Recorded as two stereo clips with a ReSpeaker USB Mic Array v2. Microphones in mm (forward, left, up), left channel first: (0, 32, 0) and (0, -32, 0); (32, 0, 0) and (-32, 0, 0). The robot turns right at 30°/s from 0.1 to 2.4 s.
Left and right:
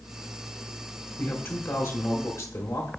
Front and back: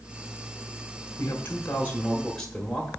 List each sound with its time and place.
1.2 s a man speaking: 45° left, 1.7 m; by 2.9 s 80° left, 1.7 m